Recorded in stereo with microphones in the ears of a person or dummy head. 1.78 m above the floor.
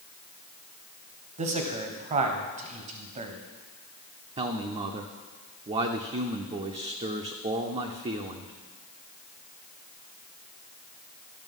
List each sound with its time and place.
1.4 s a man speaking: 30° right (ahead or behind), 0.9 m
4.4 s a man speaking: 25° right (ahead or behind), 0.5 m